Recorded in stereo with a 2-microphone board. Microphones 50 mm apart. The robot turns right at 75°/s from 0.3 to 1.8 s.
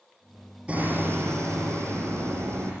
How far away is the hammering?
About 8.5 m.